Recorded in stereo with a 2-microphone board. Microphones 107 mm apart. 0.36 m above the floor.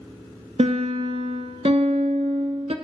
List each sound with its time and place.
0.6 s a piano: 75° right (ahead or behind), 0.6 m